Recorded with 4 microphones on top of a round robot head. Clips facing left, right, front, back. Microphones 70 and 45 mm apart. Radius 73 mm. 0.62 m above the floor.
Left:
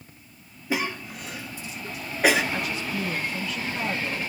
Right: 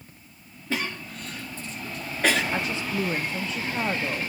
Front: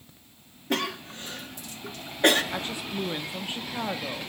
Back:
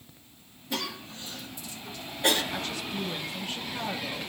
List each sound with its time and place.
0.7 s a cough: 15° left, 1.6 m
2.5 s a woman speaking: 50° right, 0.8 m